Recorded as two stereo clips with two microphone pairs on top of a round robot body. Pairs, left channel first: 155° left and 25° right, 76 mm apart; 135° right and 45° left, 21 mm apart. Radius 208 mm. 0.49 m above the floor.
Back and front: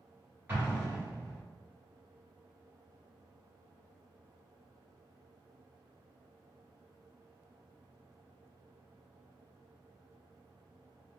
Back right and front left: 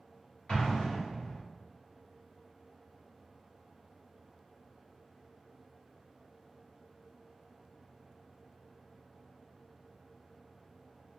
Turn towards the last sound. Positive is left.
turn(degrees=-90)